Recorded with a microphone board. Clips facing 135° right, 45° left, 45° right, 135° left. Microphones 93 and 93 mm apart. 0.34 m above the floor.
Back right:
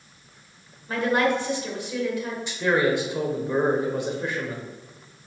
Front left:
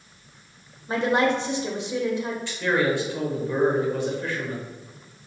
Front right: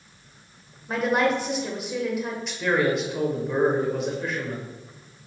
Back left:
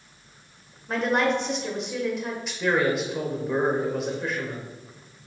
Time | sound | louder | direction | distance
0.9 | a woman speaking | front left 1 dB, front right 1 dB | 35° left | 0.9 m
2.5 | a man speaking | back right 2 dB, even | 135° right | 0.9 m